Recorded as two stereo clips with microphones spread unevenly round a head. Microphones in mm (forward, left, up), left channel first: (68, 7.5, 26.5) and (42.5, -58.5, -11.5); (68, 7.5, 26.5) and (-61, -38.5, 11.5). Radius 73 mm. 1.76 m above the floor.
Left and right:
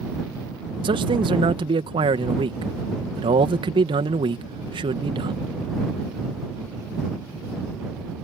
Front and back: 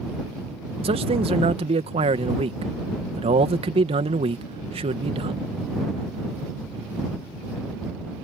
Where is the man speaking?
110° right.